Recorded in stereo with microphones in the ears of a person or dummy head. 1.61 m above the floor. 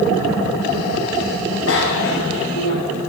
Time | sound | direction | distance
1.7 | a bicycle bell | 75° left (ahead or behind) | 6.5 m